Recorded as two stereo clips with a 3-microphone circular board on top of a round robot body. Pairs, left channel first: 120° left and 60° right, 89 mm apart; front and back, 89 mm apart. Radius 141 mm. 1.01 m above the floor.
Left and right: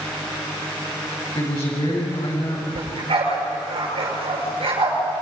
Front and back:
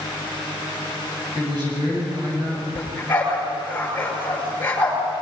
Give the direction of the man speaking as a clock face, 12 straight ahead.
7 o'clock.